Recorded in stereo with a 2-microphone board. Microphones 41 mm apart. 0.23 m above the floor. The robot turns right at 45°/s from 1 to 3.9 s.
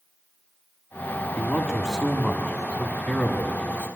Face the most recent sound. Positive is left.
turn(degrees=90)